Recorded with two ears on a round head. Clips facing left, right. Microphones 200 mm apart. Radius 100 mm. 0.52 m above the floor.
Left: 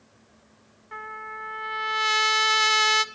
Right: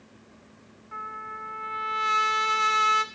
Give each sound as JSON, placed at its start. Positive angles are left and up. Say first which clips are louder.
{"t": 0.9, "sound": "a trumpet", "louder": "left 3 dB", "side_deg": 55, "distance_m": 1.1}